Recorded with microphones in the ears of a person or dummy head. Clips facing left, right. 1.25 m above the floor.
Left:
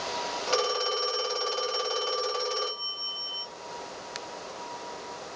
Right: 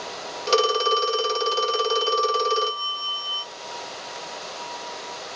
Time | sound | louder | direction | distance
0.5 | a phone ringing | right 8 dB | 55° right (ahead or behind) | 1.0 m